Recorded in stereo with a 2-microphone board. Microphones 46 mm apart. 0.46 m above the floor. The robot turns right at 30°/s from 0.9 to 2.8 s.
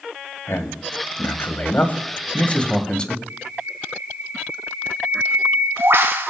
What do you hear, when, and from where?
0.5 s a man speaking: 100° left, 2.5 m; by 3.2 s 160° left, 2.5 m
3.3 s a bird: 65° right (ahead or behind), 3 m